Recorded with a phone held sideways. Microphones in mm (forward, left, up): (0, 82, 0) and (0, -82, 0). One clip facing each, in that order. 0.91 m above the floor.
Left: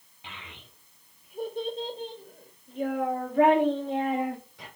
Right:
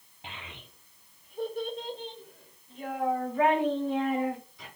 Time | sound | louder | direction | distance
0.2 | a child speaking | right 1 dB | 35° right (ahead or behind) | 1.0 m